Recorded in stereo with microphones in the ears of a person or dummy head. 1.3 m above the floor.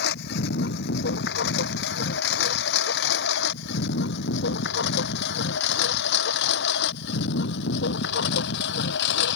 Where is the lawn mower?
65° left (ahead or behind); by 9.4 s 70° left (ahead or behind).